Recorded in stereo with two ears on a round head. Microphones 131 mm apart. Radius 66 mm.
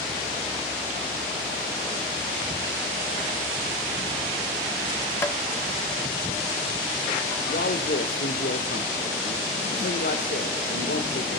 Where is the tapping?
15° left (ahead or behind), 0.8 m.